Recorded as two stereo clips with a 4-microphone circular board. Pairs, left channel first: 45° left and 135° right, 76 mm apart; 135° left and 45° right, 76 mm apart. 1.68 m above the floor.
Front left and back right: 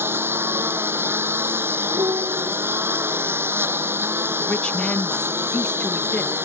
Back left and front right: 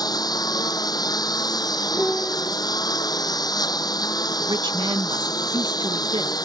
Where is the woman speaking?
35° right.